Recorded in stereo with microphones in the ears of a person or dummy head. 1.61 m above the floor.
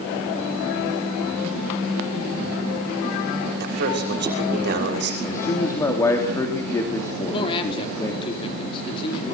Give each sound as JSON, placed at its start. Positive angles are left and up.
{"t": 3.6, "sound": "a man speaking", "side_deg": -60, "distance_m": 6.0}
{"t": 5.2, "sound": "a man speaking", "side_deg": 15, "distance_m": 3.0}
{"t": 7.3, "sound": "a man speaking", "side_deg": 35, "distance_m": 4.0}